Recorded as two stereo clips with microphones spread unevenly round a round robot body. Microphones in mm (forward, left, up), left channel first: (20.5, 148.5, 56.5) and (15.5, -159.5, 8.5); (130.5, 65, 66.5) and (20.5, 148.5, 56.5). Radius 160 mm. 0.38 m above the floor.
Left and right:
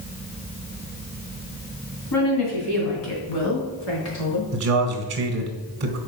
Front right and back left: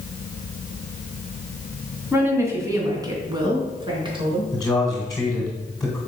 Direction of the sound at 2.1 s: 70° left.